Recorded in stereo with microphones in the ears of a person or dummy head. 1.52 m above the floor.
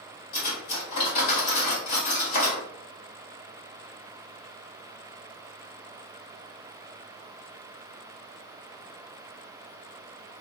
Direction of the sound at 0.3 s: 50° left (ahead or behind).